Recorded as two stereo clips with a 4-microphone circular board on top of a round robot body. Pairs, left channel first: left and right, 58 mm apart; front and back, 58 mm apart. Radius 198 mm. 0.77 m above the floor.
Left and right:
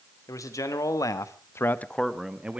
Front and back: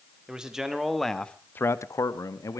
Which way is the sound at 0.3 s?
105° left.